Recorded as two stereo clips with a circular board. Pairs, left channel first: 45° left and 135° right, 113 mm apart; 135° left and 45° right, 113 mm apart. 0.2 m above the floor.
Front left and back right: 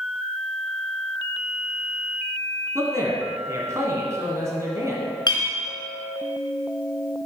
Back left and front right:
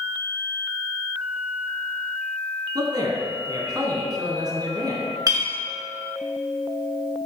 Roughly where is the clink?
Ahead.